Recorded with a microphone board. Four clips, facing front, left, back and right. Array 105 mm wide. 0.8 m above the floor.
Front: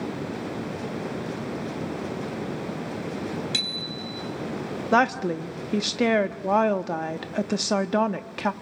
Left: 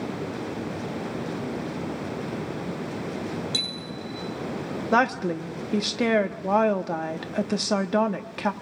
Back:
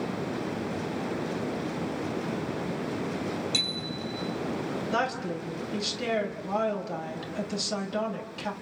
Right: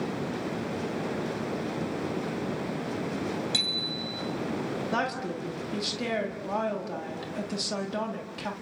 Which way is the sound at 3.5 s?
15° right.